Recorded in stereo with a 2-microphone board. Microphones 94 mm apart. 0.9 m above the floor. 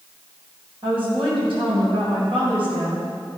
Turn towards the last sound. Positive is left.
turn(degrees=-70)  # may be behind; listen again after turning